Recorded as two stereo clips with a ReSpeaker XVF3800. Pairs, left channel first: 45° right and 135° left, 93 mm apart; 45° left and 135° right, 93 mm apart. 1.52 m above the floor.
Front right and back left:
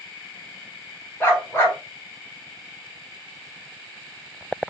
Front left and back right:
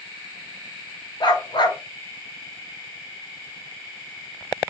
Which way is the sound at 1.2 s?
20° left.